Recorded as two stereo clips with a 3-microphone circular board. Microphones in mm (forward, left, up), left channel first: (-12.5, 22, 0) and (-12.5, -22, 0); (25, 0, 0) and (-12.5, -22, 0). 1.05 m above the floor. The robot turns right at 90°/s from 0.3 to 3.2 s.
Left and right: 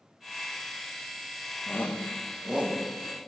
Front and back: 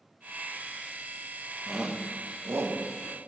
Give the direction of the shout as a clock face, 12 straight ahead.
8 o'clock.